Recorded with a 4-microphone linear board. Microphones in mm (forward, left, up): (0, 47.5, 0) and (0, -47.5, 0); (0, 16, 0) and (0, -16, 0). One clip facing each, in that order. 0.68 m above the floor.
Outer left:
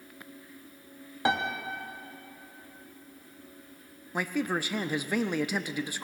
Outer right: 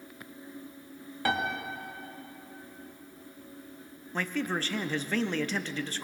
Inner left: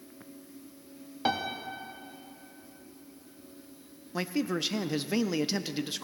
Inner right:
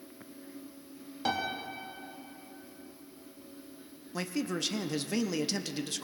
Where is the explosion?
No explosion in this recording.